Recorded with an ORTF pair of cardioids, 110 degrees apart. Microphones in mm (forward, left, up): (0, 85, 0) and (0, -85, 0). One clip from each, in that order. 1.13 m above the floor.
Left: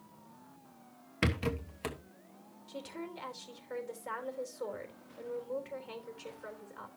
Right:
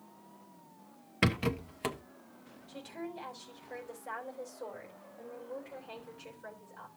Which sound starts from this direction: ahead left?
A woman speaking, at 2.7 s.